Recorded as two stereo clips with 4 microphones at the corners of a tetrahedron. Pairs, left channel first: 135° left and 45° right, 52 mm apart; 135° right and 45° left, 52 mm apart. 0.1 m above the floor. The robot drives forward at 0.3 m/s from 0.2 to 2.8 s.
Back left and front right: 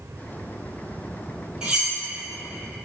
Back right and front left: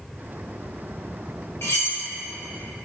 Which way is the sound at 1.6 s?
115° right.